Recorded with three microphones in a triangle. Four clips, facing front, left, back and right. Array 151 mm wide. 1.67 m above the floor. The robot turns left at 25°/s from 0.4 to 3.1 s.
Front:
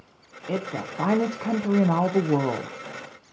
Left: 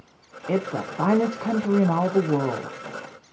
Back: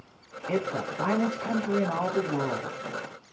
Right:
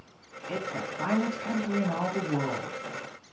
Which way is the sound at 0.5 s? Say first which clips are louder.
Left 8 dB, back 1 dB; 80° left.